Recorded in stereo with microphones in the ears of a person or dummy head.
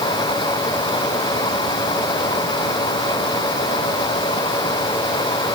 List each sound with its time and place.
Only background noise.